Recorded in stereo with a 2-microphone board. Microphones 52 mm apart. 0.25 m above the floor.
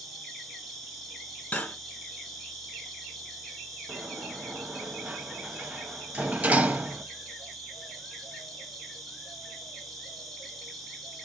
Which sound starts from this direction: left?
Cutlery clinking, at 1.5 s.